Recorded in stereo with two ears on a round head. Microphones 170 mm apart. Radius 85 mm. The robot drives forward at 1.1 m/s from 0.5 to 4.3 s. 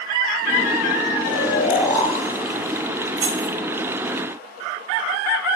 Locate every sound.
1.2 s snoring: 30° left (ahead or behind), 1.9 m; by 4.2 s 10° left (ahead or behind), 5 m
3.2 s keys jangling: 80° right, 3 m; by 3.5 s 85° right, 3 m